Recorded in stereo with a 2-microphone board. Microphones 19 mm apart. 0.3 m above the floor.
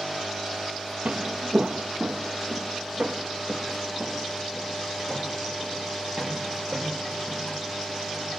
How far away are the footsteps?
About 0.5 m.